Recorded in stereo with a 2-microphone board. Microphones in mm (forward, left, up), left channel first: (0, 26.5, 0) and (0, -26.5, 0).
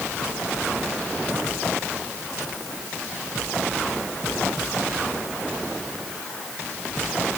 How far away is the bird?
No bird in this recording.